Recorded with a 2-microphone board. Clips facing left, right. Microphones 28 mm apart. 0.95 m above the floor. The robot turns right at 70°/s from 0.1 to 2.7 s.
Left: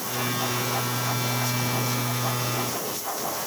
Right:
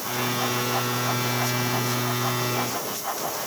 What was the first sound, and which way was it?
Only background noise.